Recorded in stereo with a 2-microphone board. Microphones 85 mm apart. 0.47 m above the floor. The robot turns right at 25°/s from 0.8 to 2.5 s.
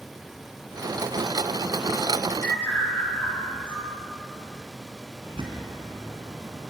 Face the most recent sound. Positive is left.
turn(degrees=-75)  # may be behind; listen again after turning